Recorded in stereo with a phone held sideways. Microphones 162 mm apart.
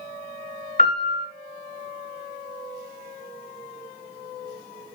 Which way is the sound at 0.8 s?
60° right (ahead or behind).